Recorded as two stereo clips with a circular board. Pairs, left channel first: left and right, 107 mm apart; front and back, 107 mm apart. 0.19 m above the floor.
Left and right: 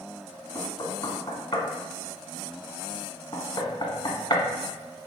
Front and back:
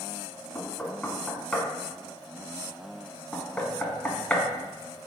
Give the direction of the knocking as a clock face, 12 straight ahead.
9 o'clock.